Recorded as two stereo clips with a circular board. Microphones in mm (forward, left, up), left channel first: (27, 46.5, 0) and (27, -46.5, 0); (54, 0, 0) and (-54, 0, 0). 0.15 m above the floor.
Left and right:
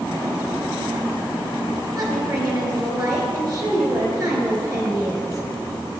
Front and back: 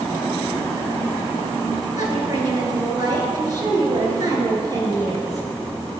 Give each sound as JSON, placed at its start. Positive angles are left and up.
{"t": 1.9, "sound": "a woman speaking", "azimuth_deg": -135, "distance_m": 2.5}